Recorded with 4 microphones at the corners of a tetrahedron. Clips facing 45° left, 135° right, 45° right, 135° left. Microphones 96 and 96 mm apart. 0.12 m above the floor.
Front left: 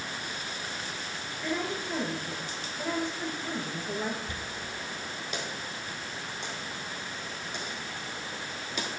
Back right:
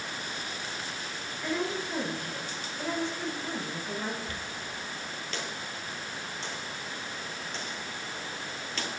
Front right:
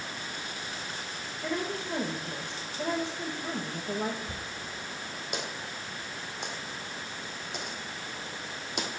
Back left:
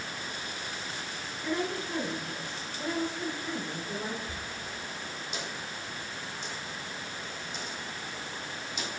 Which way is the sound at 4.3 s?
30° right.